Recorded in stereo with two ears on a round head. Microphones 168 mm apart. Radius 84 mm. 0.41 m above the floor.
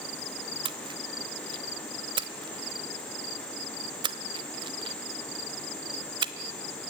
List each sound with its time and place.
0.7 s a splash: 25° right (ahead or behind), 1.0 m